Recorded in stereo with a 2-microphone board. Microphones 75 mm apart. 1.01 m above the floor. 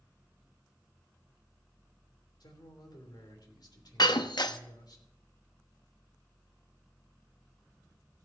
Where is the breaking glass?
70° left (ahead or behind), 0.7 m.